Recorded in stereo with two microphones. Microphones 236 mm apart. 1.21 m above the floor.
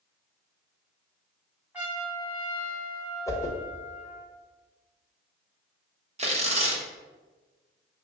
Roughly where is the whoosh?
Centre.